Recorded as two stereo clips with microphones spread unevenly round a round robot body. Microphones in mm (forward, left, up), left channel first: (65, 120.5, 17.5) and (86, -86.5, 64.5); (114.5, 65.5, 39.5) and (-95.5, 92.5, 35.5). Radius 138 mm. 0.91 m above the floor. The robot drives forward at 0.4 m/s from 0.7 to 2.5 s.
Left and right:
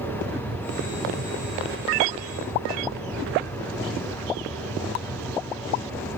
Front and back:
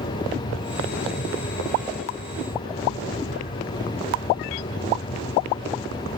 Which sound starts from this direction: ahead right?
An aircraft, at 0.0 s.